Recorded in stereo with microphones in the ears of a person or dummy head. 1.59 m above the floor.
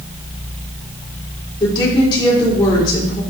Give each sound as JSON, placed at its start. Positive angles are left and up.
{"t": 1.6, "sound": "a woman speaking", "side_deg": 30, "distance_m": 4.5}